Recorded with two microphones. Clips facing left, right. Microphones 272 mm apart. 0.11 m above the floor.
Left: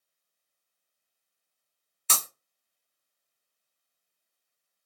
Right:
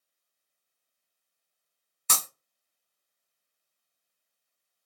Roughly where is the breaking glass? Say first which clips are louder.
Even; right.